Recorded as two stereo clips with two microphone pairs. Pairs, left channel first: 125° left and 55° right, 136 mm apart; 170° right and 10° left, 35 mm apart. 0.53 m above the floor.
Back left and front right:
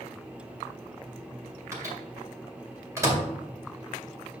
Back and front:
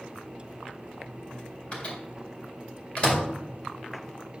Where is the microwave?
120° right, 1.9 m.